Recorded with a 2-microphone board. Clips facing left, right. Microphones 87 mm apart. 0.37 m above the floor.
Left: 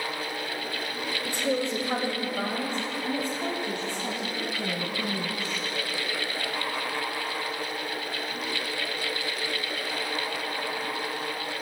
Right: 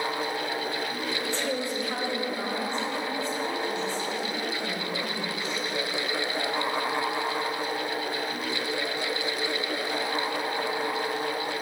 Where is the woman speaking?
10° left (ahead or behind), 1.2 m; by 5.6 s 65° left (ahead or behind), 3.5 m.